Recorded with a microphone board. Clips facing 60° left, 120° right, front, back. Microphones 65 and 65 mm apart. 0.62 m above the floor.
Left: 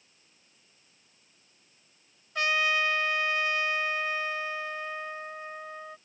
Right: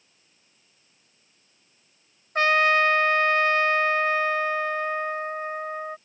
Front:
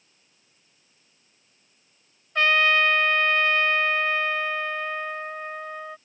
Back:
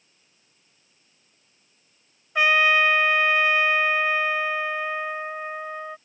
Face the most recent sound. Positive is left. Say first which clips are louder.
# right 7 dB, back 1 dB
turn(degrees=-105)